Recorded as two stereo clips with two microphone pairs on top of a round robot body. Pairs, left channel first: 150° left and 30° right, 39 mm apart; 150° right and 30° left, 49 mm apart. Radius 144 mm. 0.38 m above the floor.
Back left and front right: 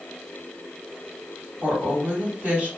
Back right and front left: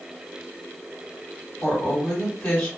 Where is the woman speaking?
85° right, 2.5 m.